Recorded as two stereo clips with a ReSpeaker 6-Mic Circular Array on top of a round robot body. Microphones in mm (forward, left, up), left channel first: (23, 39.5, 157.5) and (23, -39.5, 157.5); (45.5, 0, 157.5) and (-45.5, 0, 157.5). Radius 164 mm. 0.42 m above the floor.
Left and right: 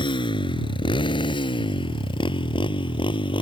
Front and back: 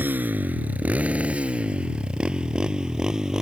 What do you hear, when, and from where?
0.0 s a motorcycle: 110° left; by 3.4 s 95° left